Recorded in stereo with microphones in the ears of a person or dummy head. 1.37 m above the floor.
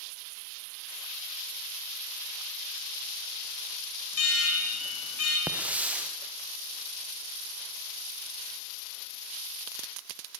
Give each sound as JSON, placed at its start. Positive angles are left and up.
{"t": 4.1, "sound": "an alarm", "side_deg": 80, "distance_m": 5.0}
{"t": 5.5, "sound": "a hiss", "side_deg": -10, "distance_m": 1.4}